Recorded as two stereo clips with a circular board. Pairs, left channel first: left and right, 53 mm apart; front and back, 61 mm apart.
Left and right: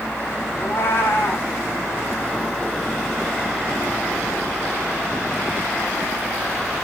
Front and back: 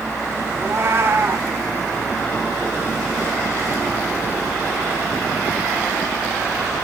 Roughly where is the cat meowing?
Behind left.